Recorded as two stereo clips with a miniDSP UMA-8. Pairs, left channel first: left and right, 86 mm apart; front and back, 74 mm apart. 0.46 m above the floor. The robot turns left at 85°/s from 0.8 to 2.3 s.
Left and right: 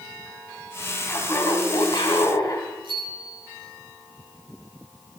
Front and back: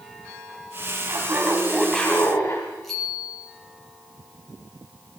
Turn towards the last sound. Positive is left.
turn(degrees=-85)